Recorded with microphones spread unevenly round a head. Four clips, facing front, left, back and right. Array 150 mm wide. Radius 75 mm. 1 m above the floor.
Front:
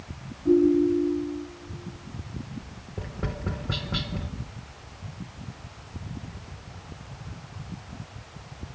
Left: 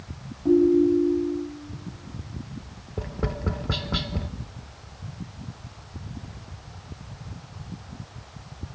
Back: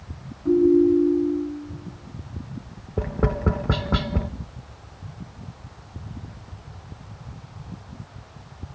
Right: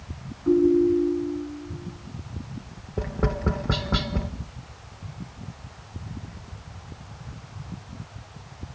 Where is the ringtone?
105° left, 5 m.